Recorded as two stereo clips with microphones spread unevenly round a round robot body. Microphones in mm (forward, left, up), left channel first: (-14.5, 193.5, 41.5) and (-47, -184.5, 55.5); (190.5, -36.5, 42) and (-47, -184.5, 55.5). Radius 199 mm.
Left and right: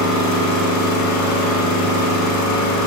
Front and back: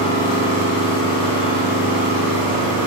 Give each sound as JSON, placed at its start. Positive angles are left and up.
{"t": 0.0, "sound": "an engine running", "azimuth_deg": 130, "distance_m": 2.5}